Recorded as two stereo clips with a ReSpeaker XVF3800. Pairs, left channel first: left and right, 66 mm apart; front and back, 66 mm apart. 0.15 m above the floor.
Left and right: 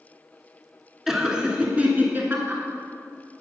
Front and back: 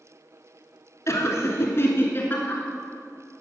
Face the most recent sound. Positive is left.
turn(degrees=-50)